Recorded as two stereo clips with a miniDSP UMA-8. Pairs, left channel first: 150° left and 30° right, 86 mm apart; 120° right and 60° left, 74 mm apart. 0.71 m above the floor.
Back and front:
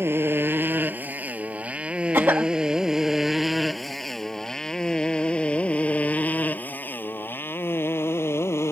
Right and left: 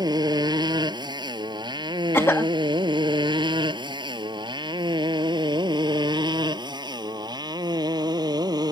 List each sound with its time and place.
0.0 s a motorcycle: 35° left; by 8.7 s 90° left
2.1 s a cough: 85° right